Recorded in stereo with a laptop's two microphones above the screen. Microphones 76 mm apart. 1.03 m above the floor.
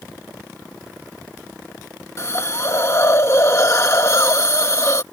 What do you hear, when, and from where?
2.2 s a hiss: 40° left (ahead or behind)